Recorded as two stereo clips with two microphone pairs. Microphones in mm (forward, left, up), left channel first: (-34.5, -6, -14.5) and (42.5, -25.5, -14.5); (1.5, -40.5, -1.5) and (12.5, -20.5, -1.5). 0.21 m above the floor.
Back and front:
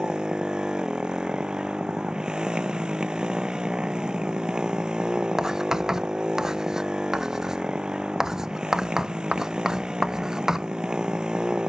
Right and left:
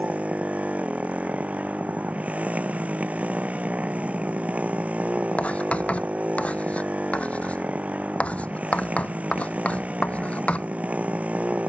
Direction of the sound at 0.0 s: 65° left.